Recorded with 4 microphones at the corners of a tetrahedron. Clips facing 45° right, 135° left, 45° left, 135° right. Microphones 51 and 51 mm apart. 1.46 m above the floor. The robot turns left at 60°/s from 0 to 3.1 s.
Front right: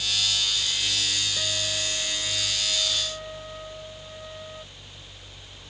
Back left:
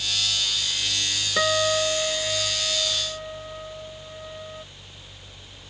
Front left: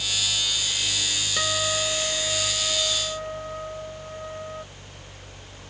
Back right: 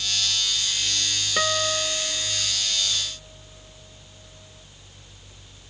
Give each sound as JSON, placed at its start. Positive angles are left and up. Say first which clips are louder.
{"t": 1.4, "sound": "a guitar", "louder": "back left 9 dB, back right 3 dB", "azimuth_deg": 155}